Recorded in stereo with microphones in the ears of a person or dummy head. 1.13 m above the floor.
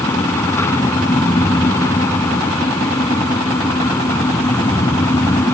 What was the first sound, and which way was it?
A fan, 10° left (ahead or behind).